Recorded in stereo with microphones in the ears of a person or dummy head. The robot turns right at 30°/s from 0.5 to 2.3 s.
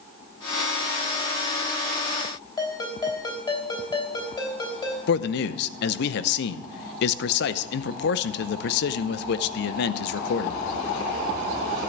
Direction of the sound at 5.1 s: 60° left (ahead or behind).